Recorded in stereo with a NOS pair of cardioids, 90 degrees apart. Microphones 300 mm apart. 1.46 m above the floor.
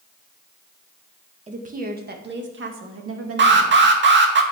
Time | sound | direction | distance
1.5 | a woman speaking | 20° right | 1.9 m
3.4 | an alarm | 35° right | 2 m